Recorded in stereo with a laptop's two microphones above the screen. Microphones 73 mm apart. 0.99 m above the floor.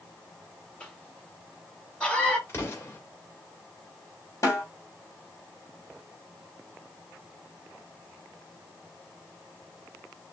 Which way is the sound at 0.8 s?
15° left (ahead or behind).